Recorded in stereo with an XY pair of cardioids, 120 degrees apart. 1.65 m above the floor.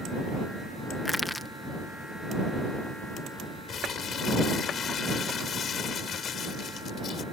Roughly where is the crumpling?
Ahead left.